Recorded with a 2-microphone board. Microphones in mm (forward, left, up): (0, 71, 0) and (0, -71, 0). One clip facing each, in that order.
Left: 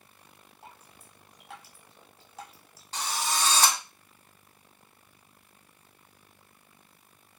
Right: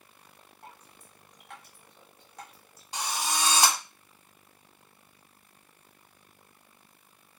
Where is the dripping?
5° left (ahead or behind), 1.0 m.